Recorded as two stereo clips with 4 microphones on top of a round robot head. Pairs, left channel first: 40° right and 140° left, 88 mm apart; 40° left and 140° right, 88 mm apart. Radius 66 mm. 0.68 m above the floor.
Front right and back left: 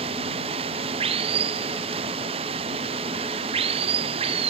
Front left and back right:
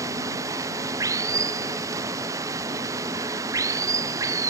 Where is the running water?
160° left.